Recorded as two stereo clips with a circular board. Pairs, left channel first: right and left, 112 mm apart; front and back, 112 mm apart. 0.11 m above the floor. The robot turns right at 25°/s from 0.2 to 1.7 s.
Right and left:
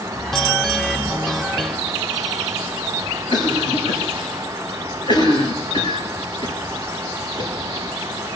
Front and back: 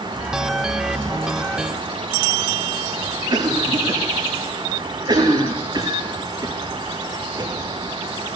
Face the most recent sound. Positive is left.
turn(degrees=-130)